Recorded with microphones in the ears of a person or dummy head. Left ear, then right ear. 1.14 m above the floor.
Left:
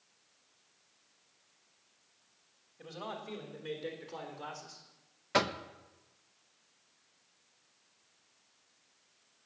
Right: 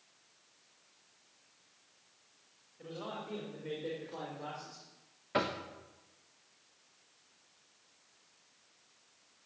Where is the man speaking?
80° left, 3.5 m; by 4.8 s 60° left (ahead or behind), 4 m.